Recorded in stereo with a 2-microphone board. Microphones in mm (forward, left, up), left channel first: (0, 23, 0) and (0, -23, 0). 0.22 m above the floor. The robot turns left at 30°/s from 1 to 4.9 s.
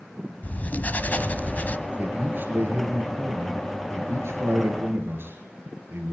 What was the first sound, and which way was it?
Writing, 35° left (ahead or behind).